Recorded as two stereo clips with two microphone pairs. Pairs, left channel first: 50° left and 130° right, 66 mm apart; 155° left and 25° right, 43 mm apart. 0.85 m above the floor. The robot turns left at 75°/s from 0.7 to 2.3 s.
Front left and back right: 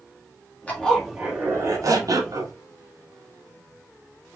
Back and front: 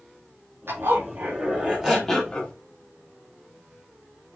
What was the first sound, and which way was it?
A zipper, 20° right.